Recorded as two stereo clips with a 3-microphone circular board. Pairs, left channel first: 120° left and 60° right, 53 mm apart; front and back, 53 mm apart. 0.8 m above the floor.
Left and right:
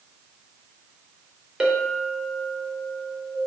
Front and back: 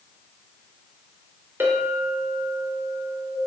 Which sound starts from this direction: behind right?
A clink, at 1.6 s.